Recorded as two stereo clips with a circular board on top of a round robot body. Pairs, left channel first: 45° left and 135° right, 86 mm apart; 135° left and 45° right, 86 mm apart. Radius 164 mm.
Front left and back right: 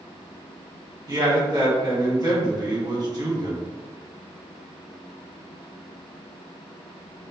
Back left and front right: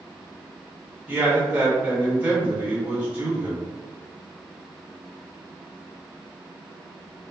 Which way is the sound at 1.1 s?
115° right.